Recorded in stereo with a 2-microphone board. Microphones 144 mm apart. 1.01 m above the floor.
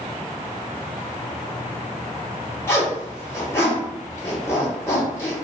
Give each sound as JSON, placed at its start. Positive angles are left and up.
{"t": 2.7, "sound": "a zipper", "side_deg": 15, "distance_m": 1.0}